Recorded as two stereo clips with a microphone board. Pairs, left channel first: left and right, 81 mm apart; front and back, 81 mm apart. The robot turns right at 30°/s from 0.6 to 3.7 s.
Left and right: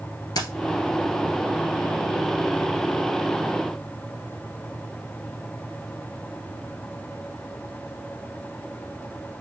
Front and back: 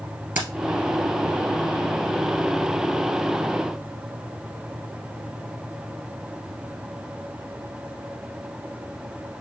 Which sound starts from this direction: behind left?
Keys jangling, at 0.3 s.